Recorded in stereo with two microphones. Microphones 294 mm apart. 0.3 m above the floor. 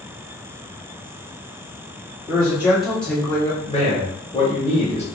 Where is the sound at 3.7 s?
20° left (ahead or behind), 1.0 m.